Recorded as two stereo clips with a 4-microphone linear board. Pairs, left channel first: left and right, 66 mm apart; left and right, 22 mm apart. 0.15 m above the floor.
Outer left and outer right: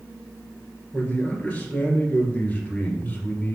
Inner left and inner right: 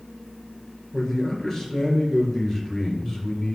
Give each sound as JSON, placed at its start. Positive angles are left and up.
{"t": 0.9, "sound": "a man speaking", "side_deg": 20, "distance_m": 2.5}